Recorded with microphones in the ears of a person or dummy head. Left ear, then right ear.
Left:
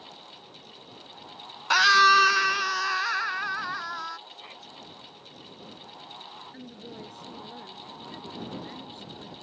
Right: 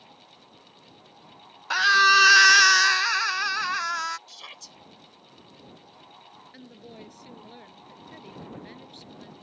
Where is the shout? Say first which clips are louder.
Right 1 dB; 75° right (ahead or behind).